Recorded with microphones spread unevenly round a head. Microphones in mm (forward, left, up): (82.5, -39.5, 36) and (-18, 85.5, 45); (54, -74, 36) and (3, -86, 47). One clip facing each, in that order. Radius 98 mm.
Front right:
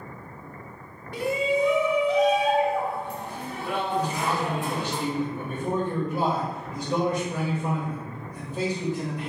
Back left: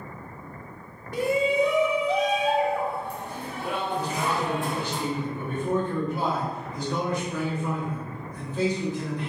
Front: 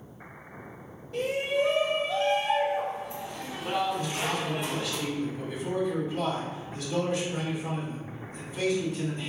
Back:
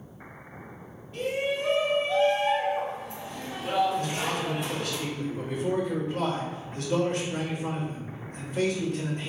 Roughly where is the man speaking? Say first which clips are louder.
Front right 1 dB, back 1 dB; behind right.